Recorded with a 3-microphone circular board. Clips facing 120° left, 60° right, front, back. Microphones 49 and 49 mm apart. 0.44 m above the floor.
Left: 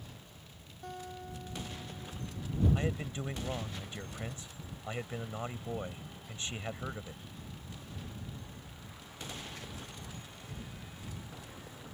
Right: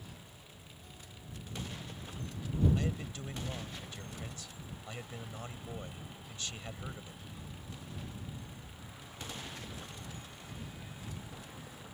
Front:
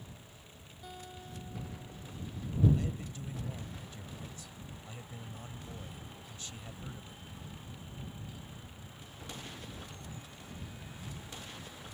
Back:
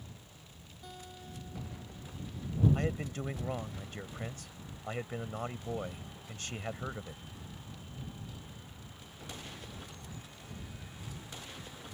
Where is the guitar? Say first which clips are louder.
Left 14 dB, front 1 dB; 85° left.